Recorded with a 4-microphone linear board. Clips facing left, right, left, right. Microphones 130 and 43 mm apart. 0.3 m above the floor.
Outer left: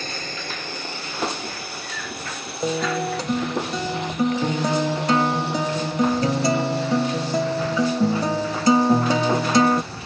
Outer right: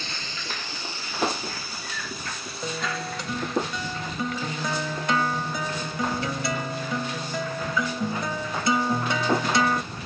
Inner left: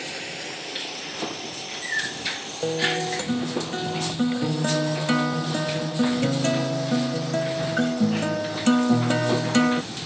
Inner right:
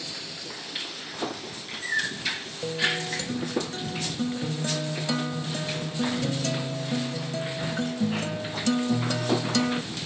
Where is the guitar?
35° left (ahead or behind).